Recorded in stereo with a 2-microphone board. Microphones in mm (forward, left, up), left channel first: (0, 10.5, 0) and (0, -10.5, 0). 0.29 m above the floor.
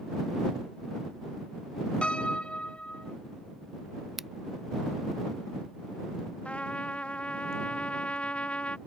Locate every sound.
2.0 s a piano: 65° left (ahead or behind)
4.2 s scissors: 15° right (ahead or behind)
6.5 s a trumpet: 70° left (ahead or behind)